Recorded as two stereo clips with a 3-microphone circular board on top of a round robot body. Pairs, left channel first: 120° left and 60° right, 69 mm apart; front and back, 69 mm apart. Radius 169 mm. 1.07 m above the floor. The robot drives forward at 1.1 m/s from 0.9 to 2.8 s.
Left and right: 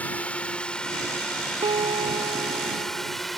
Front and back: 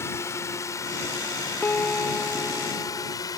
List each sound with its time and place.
0.0 s a drone: 50° left; by 3.4 s 30° left
1.6 s a piano: 70° right; by 3.2 s 90° right